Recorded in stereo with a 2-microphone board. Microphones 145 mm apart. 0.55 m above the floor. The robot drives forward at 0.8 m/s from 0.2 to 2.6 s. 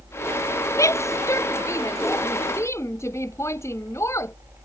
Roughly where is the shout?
Left.